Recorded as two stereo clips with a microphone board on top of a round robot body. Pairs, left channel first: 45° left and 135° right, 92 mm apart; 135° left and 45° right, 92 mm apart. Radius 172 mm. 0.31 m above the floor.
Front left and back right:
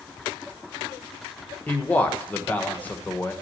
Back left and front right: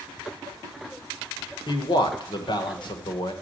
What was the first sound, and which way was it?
A man speaking, 115° left.